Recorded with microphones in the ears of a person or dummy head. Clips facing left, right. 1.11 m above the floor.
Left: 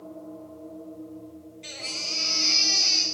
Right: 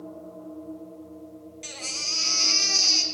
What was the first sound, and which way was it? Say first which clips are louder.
A baby crying: left 1 dB; 55° right (ahead or behind).